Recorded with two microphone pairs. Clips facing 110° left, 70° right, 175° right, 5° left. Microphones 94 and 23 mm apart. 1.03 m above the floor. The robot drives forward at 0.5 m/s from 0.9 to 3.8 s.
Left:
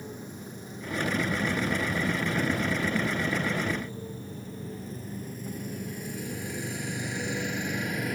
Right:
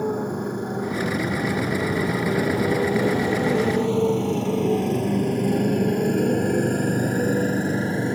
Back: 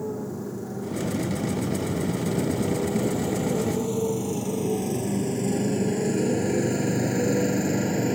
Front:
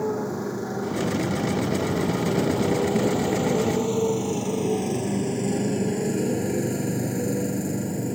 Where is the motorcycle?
45° right; by 8.2 s 130° right.